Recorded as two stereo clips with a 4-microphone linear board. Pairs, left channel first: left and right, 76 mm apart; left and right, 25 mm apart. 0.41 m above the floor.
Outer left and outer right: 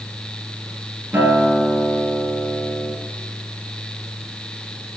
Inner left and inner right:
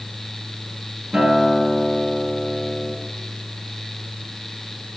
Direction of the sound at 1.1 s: 25° right (ahead or behind).